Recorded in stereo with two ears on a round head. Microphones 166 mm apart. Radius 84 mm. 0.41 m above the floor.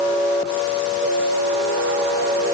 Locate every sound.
Only background noise.